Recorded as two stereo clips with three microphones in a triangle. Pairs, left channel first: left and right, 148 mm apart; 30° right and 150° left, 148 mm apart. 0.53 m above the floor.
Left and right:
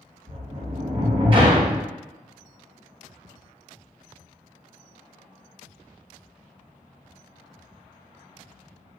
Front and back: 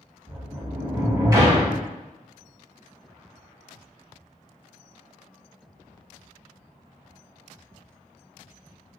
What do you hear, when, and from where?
0.3 s a sliding door: 145° right, 1.2 m